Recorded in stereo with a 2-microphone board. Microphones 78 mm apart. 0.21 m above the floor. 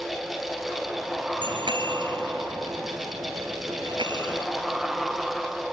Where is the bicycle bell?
85° right; by 4.5 s 80° right.